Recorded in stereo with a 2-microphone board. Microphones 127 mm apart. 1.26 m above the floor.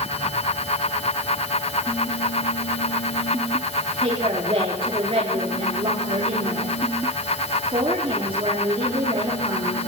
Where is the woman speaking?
45° right (ahead or behind), 4 m.